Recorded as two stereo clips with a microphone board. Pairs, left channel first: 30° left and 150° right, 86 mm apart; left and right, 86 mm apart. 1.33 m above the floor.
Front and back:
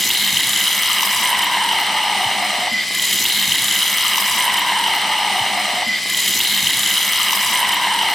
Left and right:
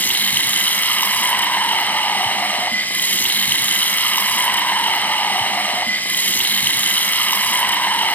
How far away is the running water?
About 1.2 m.